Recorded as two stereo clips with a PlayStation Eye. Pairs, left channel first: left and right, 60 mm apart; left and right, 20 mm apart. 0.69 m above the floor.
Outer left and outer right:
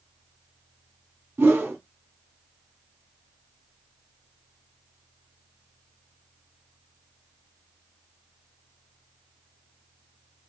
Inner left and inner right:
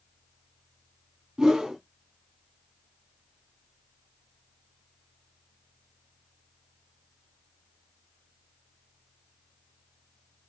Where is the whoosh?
35° right (ahead or behind), 1.1 m.